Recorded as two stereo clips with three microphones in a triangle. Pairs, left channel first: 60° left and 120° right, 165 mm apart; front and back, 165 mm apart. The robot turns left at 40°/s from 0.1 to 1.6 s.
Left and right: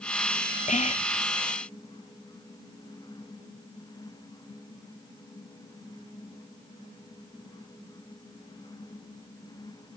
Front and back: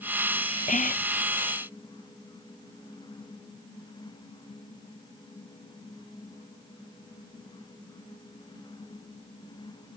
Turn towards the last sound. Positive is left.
turn(degrees=-10)